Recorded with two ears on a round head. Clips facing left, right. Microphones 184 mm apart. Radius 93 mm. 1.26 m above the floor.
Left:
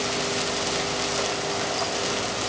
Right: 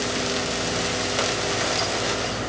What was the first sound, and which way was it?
Only background noise.